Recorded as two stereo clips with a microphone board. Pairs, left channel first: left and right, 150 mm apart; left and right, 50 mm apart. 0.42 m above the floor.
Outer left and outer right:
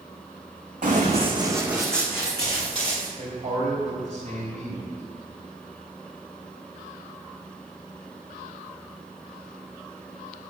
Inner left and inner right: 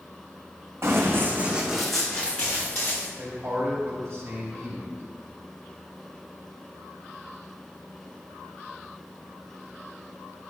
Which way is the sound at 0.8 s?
60° right (ahead or behind).